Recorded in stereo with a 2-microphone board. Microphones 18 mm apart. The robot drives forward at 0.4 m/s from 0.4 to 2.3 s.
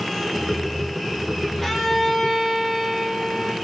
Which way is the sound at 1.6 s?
10° left (ahead or behind).